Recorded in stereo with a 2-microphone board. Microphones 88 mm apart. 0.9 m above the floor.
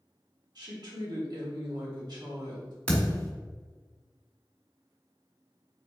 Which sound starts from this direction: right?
A woman speaking, at 0.6 s.